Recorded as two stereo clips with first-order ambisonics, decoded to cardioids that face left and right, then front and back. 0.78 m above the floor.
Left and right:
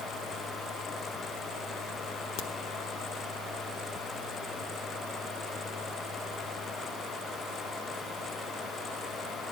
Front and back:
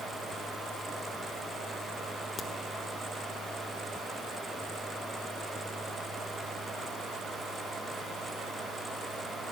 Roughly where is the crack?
Ahead left.